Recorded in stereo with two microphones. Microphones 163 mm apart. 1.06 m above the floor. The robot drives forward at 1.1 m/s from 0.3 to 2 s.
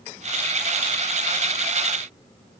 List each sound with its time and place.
Only background noise.